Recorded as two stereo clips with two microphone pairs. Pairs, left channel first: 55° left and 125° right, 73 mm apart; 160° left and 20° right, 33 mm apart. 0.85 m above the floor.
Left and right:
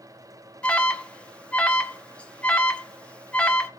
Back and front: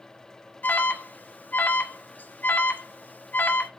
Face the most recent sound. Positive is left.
turn(degrees=130)